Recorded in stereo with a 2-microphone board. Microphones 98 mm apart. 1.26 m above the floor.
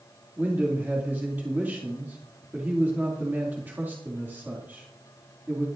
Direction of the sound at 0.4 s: 20° right (ahead or behind).